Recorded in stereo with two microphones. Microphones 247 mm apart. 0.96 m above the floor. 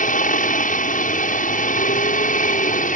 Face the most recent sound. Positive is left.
turn(degrees=30)  # may be behind; listen again after turning